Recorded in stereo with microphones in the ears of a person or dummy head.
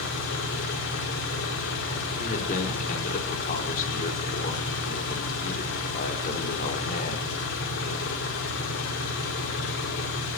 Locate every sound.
0.0 s an engine running: 75° left (ahead or behind), 3.5 m
2.2 s a man speaking: 50° left (ahead or behind), 3.5 m